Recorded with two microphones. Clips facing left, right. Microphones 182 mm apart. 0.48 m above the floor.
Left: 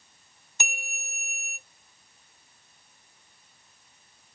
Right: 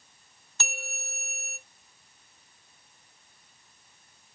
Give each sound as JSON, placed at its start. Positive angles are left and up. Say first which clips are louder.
{"t": 0.6, "sound": "a bell", "louder": "right 2 dB", "side_deg": 15, "distance_m": 0.6}